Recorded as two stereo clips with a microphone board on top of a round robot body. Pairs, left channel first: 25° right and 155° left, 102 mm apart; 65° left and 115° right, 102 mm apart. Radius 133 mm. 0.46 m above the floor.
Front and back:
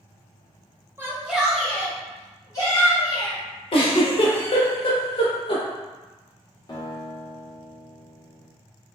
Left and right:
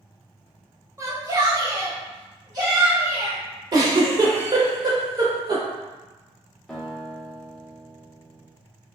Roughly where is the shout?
Behind right.